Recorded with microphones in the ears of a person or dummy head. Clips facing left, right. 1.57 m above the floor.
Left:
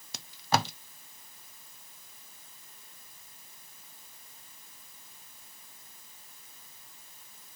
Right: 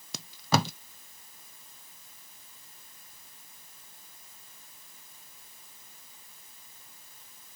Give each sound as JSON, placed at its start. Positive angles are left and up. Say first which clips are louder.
{"t": 0.1, "sound": "tape being pulled", "louder": "right 2 dB", "side_deg": -75, "distance_m": 0.5}